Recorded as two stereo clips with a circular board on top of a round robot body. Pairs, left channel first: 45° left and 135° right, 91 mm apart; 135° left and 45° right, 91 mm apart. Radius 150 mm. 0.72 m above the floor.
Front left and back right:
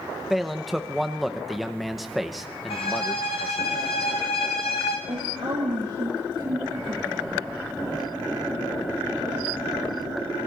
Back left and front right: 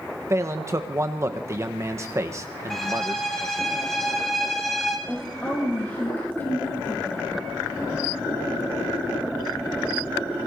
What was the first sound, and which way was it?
A man speaking, 45° right.